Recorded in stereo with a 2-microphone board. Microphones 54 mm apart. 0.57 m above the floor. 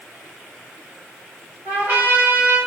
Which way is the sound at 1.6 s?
40° right (ahead or behind).